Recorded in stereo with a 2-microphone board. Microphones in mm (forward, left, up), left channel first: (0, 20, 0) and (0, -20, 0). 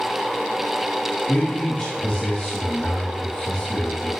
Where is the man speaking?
40° left (ahead or behind), 3 m.